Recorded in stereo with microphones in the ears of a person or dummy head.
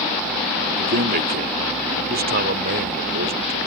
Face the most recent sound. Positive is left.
turn(degrees=-50)  # may be behind; listen again after turning